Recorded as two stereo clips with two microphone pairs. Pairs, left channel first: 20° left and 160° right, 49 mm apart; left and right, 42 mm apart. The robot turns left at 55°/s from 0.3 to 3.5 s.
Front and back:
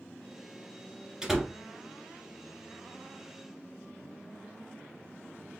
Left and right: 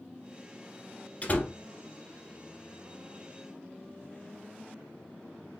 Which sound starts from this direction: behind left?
A door slam, at 1.2 s.